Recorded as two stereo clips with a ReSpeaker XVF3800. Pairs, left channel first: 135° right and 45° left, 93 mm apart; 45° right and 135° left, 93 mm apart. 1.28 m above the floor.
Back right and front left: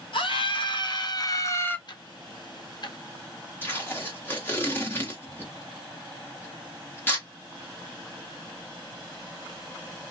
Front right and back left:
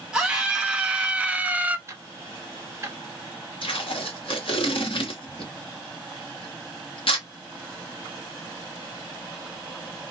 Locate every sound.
0.1 s a scream: 145° right, 1.2 m; by 1.8 s 175° right, 0.5 m
1.9 s ticking: 165° right, 0.7 m
3.6 s tape being pulled: 65° right, 1.1 m